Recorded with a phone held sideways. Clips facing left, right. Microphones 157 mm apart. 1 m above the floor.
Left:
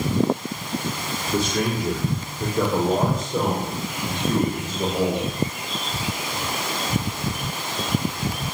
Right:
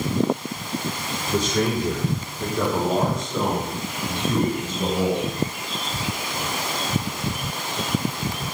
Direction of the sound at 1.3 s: 10° left (ahead or behind).